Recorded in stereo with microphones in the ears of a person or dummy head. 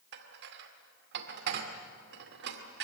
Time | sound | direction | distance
0.1 | dishes clattering | 60° right (ahead or behind) | 2.0 m